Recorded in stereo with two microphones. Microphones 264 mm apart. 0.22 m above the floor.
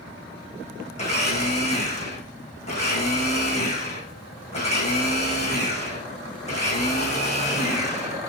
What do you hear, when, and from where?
0.9 s a blender: 25° left (ahead or behind), 7.5 m